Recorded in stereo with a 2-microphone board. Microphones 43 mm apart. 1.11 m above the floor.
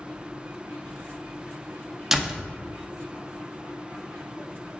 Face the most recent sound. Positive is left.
turn(degrees=-10)  # may be behind; listen again after turning